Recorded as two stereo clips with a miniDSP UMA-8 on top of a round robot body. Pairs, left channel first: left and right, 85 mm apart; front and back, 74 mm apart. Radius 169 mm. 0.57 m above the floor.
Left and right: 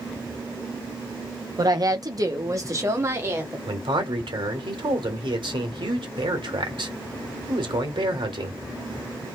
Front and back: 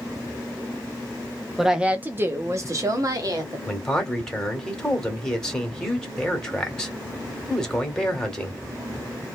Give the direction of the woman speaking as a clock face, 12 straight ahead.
3 o'clock.